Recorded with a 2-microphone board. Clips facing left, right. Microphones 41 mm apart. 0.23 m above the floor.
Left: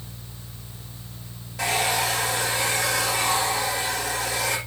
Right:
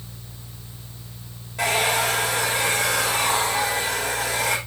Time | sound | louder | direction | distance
1.6 | a hair dryer | right 2 dB | 80° right | 8.5 m